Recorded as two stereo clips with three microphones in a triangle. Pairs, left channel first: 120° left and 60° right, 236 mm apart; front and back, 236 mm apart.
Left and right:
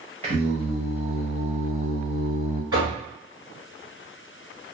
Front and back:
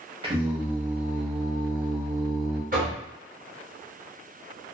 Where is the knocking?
130° right, 1.8 m.